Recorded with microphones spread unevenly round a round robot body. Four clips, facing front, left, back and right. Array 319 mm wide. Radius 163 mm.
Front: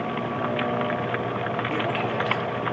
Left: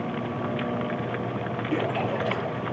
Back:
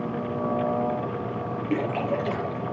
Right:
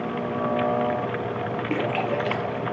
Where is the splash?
120° right, 4.5 m.